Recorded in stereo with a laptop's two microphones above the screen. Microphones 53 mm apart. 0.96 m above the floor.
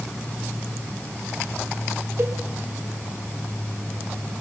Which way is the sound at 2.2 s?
50° right (ahead or behind).